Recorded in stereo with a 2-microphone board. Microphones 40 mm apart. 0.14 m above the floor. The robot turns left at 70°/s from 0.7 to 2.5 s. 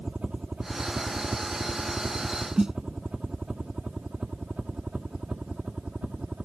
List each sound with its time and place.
0.0 s a helicopter: 25° right (ahead or behind); by 6.4 s 30° right (ahead or behind)
2.6 s a snare drum: 15° right (ahead or behind)